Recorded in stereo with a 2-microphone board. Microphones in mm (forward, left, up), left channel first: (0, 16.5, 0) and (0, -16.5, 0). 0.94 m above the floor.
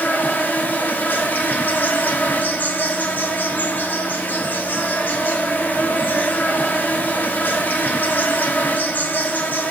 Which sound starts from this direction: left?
An insect, at 0.0 s.